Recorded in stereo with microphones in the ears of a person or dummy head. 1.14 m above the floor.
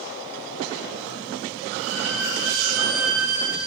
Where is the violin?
75° right (ahead or behind), 2 m.